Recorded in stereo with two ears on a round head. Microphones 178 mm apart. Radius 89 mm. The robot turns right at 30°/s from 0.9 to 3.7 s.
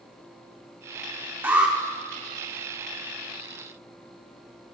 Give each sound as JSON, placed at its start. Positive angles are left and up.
{"t": 1.4, "sound": "an alarm", "side_deg": -10, "distance_m": 0.7}